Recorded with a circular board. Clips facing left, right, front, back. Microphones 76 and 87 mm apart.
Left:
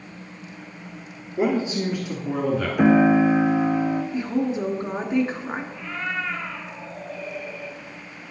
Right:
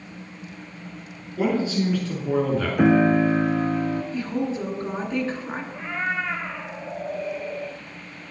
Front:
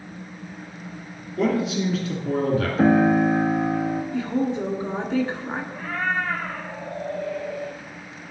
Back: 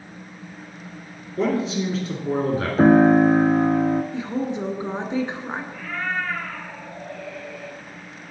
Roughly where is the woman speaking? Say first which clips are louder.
Left 2 dB, front 2 dB; behind left.